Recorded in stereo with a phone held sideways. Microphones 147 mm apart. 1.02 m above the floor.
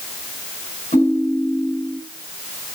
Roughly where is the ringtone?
Left.